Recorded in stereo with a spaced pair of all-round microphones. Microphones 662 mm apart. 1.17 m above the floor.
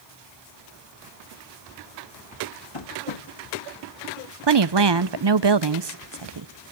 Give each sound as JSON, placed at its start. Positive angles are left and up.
{"t": 2.7, "sound": "tapping", "side_deg": 40, "distance_m": 1.5}
{"t": 4.4, "sound": "a woman speaking", "side_deg": -40, "distance_m": 0.6}